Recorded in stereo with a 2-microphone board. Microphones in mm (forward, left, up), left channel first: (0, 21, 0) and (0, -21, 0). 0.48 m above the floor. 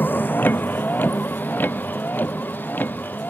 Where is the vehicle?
45° left (ahead or behind).